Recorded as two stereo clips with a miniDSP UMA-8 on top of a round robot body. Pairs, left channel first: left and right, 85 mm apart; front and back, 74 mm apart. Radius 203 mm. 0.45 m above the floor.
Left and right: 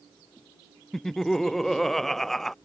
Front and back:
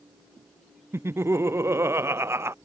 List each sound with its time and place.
0.9 s laughter: 175° left